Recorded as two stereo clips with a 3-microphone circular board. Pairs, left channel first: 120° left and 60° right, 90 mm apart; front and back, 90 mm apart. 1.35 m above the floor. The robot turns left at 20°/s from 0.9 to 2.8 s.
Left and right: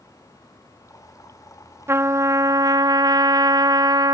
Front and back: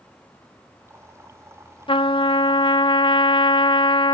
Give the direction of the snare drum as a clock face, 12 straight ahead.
I don't hear a snare drum.